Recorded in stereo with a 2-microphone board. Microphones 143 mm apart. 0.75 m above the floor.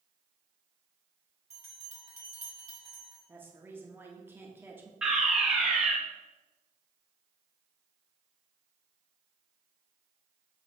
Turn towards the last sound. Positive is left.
turn(degrees=-5)  # may be behind; listen again after turning